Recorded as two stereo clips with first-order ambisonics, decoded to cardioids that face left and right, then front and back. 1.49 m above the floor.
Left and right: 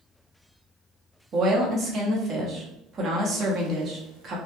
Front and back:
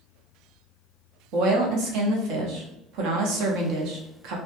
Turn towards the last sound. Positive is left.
turn(degrees=-150)